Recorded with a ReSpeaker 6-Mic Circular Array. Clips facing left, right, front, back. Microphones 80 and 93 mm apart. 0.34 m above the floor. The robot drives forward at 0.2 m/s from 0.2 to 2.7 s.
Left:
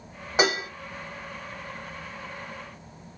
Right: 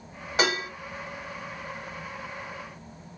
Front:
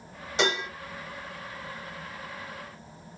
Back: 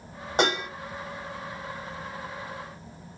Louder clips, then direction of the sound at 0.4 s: Left 2 dB, back 2 dB; 155° left.